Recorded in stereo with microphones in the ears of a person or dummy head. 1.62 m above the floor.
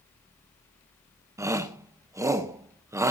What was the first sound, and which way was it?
A shout, 10° right (ahead or behind).